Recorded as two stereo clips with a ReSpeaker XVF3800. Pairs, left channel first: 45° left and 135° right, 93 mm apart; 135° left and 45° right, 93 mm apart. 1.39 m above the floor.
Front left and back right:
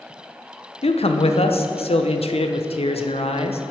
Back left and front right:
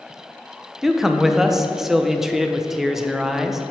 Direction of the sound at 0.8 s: 40° left.